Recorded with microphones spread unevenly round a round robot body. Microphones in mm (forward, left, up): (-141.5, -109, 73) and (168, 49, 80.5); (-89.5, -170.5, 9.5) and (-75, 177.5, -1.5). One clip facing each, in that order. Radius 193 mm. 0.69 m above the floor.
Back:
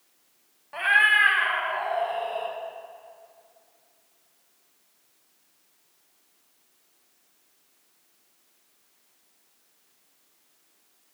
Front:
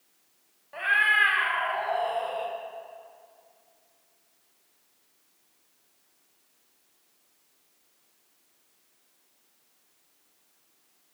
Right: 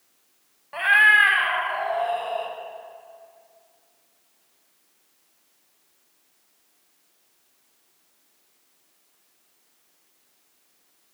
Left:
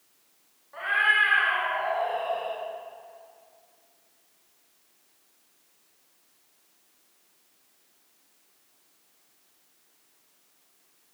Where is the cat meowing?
80° right, 1.3 m; by 2.5 s 35° right, 2 m.